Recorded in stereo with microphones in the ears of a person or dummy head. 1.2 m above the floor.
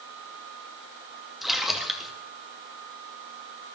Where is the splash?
Centre (ahead or behind), 2 m.